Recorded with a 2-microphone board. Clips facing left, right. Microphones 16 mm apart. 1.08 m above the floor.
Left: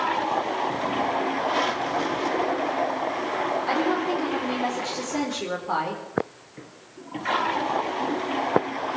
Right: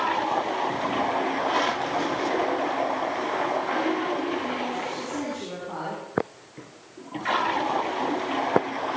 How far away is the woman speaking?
About 4 m.